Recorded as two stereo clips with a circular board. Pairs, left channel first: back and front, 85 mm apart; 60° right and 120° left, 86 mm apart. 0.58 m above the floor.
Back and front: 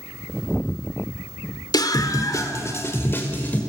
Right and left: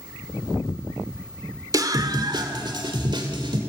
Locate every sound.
1.7 s a scream: 155° left, 1.8 m; by 3.6 s 115° left, 2.5 m